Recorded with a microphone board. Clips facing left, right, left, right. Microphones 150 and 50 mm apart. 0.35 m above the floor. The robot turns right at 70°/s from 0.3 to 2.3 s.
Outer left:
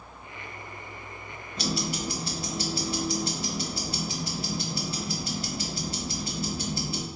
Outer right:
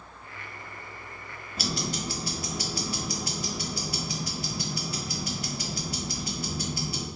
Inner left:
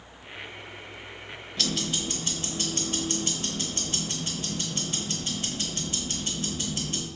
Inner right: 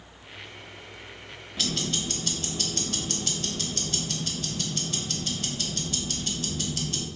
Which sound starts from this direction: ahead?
Ticking, at 1.6 s.